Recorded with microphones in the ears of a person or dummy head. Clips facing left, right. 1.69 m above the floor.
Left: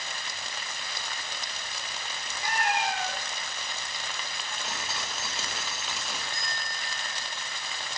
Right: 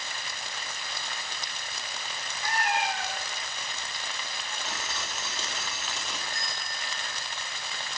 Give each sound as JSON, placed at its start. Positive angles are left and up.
{"t": 2.4, "sound": "a cat meowing", "side_deg": 20, "distance_m": 1.6}
{"t": 4.7, "sound": "dripping", "side_deg": 10, "distance_m": 0.9}
{"t": 6.3, "sound": "a bell", "side_deg": 55, "distance_m": 2.5}